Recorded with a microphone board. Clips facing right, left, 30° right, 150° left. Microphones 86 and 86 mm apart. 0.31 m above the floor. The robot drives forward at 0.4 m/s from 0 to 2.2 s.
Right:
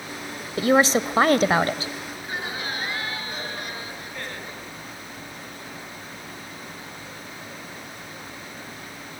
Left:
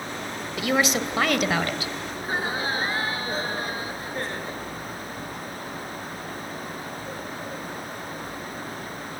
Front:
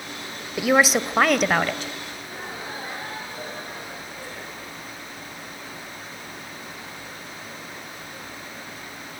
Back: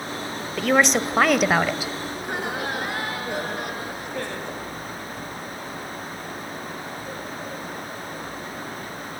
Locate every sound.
0.6 s a woman speaking: 105° right, 1.4 m; by 1.9 s 130° right, 1.6 m
2.1 s laughter: 145° left, 4 m